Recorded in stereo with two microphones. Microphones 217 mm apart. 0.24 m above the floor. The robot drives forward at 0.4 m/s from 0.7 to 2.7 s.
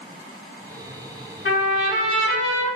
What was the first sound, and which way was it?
A trumpet, 65° left (ahead or behind).